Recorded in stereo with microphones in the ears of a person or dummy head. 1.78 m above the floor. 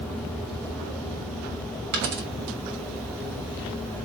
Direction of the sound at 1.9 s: 50° right (ahead or behind).